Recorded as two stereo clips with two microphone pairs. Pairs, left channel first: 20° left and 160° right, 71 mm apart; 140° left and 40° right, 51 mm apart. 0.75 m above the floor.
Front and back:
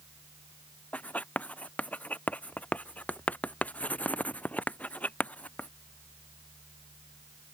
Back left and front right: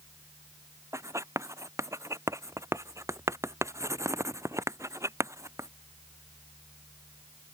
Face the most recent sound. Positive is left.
turn(degrees=-45)